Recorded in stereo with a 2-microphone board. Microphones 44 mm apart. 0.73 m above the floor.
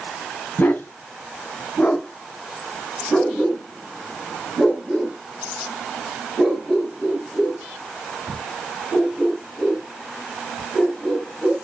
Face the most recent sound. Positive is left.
turn(degrees=-10)  # may be behind; listen again after turning